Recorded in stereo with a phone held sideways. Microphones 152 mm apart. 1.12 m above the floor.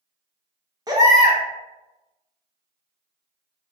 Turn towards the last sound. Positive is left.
turn(degrees=-25)  # may be behind; listen again after turning